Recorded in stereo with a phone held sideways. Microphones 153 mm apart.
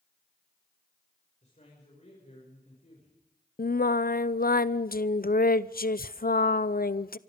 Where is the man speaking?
50° left (ahead or behind), 6 m.